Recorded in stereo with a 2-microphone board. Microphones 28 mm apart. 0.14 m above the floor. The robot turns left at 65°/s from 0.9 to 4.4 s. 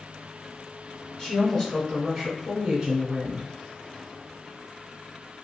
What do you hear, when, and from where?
1.2 s a woman speaking: 30° left (ahead or behind), 1.3 m; by 3.5 s 30° right (ahead or behind), 1.3 m